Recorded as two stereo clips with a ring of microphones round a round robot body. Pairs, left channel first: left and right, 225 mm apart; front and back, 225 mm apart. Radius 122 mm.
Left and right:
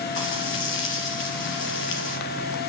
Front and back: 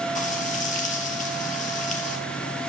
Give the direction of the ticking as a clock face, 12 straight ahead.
No ticking in this recording.